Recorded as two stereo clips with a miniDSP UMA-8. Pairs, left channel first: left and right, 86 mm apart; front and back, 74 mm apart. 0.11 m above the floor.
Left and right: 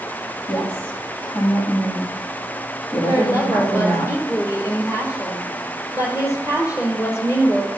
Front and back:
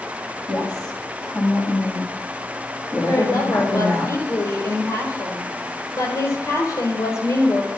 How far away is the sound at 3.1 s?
About 3 m.